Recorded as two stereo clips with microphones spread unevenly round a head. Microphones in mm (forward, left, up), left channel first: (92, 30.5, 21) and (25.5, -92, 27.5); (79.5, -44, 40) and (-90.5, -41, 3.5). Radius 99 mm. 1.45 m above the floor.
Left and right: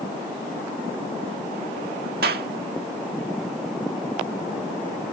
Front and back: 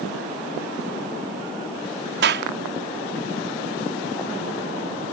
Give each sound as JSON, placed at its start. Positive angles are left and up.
{"t": 2.2, "sound": "a clap", "azimuth_deg": -160}